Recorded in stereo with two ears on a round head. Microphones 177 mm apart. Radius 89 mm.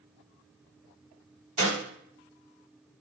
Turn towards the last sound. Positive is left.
turn(degrees=-30)  # may be behind; listen again after turning